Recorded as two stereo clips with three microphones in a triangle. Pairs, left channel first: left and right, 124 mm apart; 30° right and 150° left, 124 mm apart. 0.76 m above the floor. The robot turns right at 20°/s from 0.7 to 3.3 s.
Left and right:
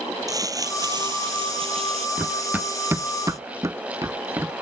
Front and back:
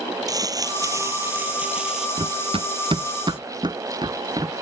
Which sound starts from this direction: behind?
Running footsteps, at 2.2 s.